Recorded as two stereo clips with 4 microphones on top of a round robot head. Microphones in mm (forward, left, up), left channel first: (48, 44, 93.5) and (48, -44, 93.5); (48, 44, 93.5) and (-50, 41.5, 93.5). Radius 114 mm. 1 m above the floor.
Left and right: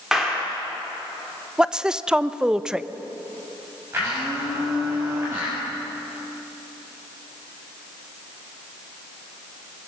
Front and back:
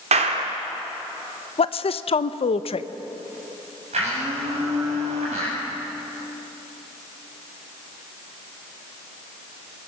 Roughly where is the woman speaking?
Ahead.